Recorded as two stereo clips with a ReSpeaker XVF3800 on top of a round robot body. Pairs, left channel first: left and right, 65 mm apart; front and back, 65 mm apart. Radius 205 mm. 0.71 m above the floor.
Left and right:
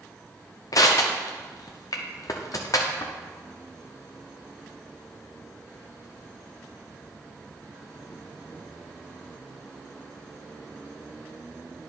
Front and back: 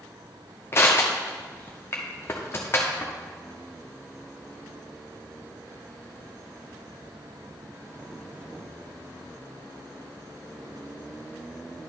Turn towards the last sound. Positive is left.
turn(degrees=55)